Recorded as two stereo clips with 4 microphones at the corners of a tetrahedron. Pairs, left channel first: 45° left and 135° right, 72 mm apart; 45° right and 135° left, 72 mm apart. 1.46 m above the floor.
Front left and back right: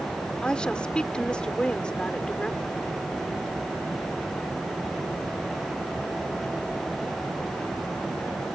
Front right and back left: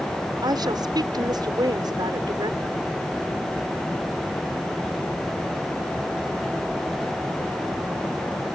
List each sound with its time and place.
0.4 s a woman speaking: 120° left